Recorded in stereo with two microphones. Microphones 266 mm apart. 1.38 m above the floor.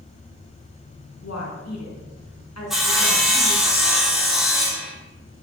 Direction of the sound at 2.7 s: Centre (ahead or behind).